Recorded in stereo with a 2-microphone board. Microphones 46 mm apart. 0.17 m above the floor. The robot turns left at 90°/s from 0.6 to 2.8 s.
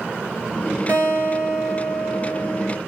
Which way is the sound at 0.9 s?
105° right.